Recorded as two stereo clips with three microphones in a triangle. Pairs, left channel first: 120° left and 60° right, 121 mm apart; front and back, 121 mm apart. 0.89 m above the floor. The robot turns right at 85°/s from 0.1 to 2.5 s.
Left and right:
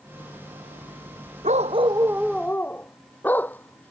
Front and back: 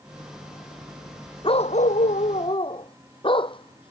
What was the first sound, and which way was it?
A dog barking, 45° right.